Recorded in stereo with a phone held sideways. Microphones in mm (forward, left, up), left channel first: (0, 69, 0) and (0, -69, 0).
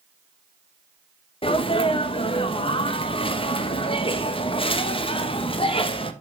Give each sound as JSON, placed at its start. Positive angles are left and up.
{"t": 1.4, "sound": "a sneeze", "side_deg": 40, "distance_m": 0.8}